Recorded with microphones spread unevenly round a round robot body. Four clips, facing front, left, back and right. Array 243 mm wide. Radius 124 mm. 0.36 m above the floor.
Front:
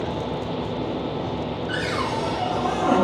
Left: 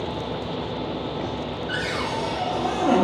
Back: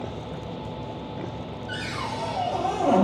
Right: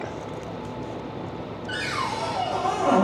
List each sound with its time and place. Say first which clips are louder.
1.7 s a cupboard door: right 1 dB, front 5 dB; 170° right, 1.5 m